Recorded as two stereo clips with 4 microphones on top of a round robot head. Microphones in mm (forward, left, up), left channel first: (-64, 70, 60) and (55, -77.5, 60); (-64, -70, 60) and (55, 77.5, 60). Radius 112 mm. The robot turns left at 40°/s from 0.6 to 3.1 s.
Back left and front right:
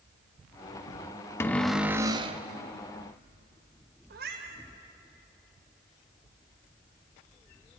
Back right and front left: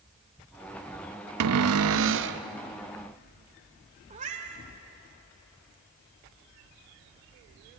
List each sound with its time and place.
1.4 s a cupboard door: 50° left, 0.6 m; by 2.4 s 10° left, 0.6 m
4.1 s a cat meowing: 5° right, 2 m